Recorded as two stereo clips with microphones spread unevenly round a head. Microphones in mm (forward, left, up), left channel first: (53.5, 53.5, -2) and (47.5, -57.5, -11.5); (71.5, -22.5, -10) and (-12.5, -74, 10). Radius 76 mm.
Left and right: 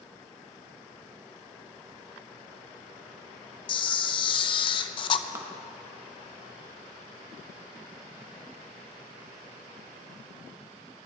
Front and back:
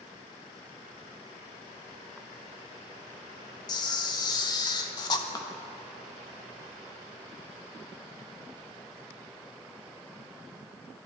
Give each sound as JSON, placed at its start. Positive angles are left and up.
{"t": 3.7, "sound": "a camera shutter", "azimuth_deg": 90, "distance_m": 0.6}
{"t": 5.3, "sound": "a clap", "azimuth_deg": -25, "distance_m": 1.7}